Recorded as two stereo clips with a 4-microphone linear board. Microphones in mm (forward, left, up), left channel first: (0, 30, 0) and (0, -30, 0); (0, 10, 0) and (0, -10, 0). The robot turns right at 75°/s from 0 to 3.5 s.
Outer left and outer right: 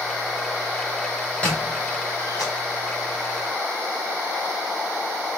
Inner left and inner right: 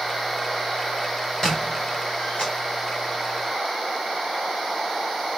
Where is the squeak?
15° left (ahead or behind), 2 m; by 2.5 s 80° left, 2 m.